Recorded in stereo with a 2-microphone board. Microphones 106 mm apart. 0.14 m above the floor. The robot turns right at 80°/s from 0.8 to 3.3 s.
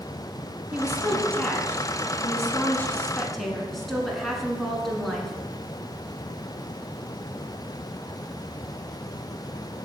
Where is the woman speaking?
10° right (ahead or behind), 1.3 m; by 5.3 s centre (ahead or behind), 1.3 m.